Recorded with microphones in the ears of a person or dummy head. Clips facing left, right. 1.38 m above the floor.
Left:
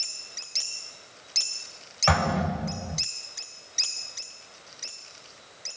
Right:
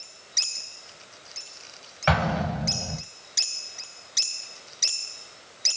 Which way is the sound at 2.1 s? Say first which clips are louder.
Even; 5° right (ahead or behind).